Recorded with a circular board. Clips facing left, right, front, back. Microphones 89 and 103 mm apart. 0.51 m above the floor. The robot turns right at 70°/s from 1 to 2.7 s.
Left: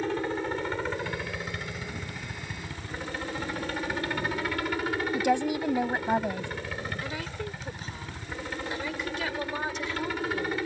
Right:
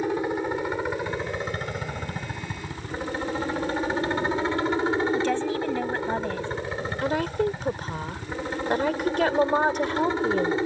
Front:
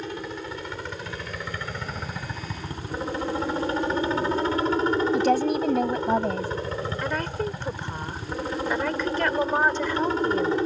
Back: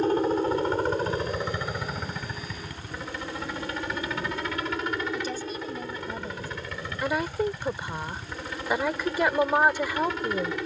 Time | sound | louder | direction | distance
0.0 | a helicopter | right 4 dB, back 10 dB | 160° right | ?
5.1 | a woman speaking | right 1 dB, front 11 dB | 15° left | ?
7.0 | a woman speaking | right 11 dB, back 5 dB | 100° right | ?